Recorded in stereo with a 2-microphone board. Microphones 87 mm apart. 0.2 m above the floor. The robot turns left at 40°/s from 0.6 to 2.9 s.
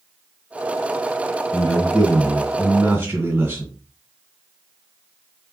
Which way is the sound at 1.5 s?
15° left.